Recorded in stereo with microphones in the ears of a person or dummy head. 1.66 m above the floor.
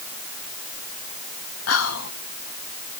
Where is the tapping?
I don't hear tapping.